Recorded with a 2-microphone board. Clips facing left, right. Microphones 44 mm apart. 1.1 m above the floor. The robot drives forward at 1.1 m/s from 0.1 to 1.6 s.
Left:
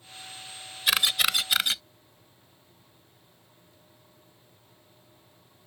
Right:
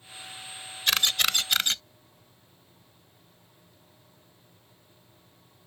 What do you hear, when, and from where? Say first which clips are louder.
0.9 s a camera shutter: left 1 dB; 5° left (ahead or behind)